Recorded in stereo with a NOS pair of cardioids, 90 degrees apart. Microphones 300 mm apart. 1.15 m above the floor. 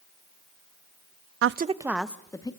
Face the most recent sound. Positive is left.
turn(degrees=15)